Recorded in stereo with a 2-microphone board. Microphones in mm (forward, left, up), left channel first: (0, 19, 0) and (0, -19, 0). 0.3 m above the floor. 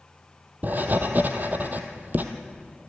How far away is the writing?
About 1.7 m.